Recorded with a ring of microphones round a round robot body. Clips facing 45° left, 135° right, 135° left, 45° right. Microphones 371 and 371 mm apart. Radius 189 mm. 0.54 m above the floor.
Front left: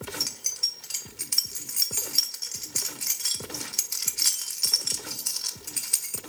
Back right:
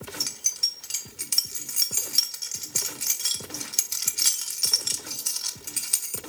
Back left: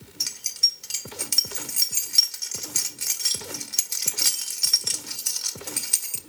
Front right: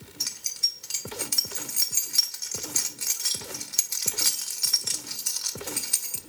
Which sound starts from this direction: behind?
Keys jangling, at 0.2 s.